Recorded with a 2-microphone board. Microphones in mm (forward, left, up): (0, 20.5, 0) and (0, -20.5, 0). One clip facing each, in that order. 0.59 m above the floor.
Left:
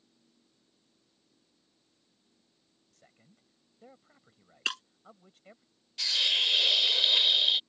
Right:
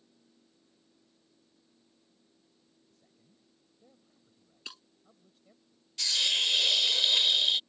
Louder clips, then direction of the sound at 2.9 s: Left 2 dB; 70° left (ahead or behind).